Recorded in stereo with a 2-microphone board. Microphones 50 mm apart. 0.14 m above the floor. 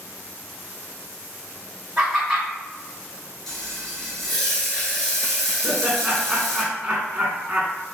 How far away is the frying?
About 1.1 m.